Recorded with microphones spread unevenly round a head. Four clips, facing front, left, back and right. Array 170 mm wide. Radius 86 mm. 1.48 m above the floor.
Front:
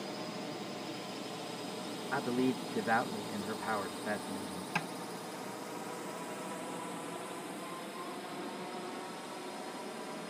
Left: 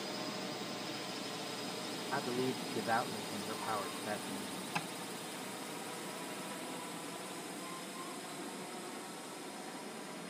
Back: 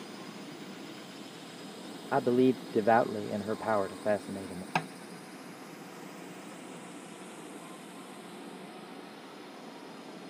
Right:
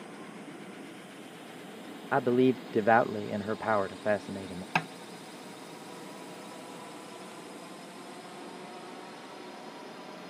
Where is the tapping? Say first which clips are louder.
Right 10 dB, back 6 dB; 140° right.